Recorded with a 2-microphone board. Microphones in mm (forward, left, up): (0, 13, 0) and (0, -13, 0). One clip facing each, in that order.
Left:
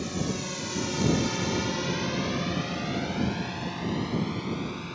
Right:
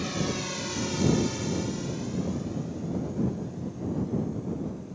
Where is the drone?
20° right (ahead or behind); by 5.0 s 85° left.